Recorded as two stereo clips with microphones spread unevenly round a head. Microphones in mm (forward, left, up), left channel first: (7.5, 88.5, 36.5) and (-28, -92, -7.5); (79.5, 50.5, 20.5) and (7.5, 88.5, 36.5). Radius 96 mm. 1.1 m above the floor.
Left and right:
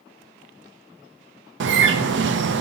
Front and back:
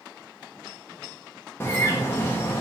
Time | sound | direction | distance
1.6 | a bird | 95° right | 0.5 m